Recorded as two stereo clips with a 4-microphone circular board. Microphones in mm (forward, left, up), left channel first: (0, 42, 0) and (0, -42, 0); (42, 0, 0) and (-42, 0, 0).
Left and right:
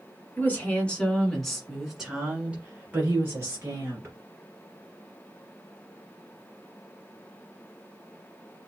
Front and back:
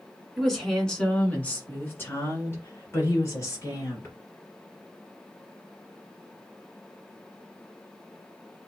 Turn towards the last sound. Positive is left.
turn(degrees=-40)